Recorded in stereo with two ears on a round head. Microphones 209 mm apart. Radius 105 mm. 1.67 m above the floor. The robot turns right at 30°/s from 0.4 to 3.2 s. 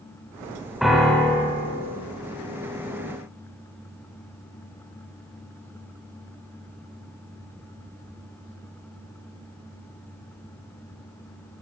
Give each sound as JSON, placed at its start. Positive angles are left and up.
{"t": 0.8, "sound": "a piano", "side_deg": 0, "distance_m": 1.8}